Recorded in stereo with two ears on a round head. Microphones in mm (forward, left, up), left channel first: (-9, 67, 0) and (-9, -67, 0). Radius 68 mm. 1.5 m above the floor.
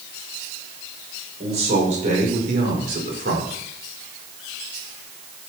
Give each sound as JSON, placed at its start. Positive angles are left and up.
{"t": 1.4, "sound": "a man speaking", "side_deg": -45, "distance_m": 5.5}